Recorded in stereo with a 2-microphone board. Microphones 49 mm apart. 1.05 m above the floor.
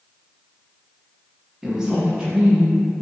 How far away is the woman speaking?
About 0.6 m.